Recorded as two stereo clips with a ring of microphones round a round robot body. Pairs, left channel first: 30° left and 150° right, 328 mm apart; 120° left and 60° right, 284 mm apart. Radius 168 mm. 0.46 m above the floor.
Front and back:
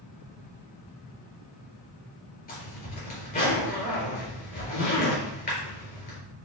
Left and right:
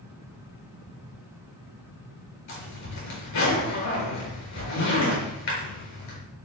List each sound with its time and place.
2.5 s a zipper: 95° left, 4.5 m